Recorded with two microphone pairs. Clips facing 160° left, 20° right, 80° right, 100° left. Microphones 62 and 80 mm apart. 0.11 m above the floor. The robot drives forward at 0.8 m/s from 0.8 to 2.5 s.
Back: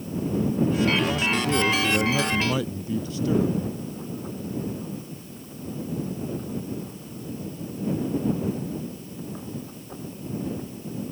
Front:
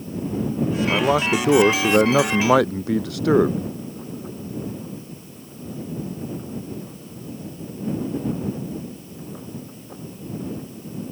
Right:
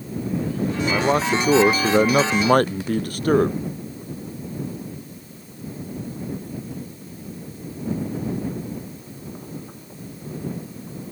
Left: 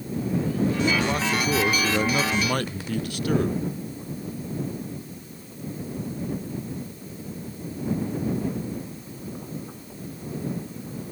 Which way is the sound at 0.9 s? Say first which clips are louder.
Front 5 dB, right 5 dB; 30° right.